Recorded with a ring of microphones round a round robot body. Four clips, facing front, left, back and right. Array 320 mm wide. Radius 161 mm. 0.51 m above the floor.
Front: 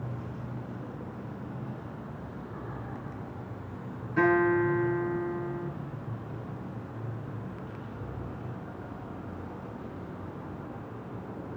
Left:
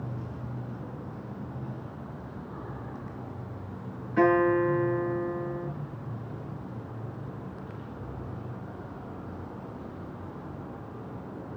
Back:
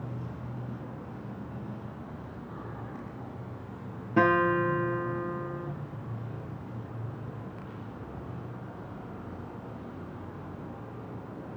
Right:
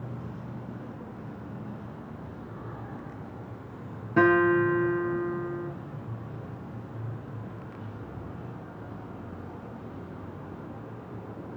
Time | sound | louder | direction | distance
4.2 | a guitar | right 1 dB, even | 125° right | 6 m